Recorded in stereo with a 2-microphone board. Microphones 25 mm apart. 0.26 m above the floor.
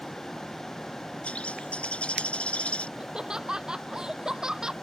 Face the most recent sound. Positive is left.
turn(degrees=-25)  # may be behind; listen again after turning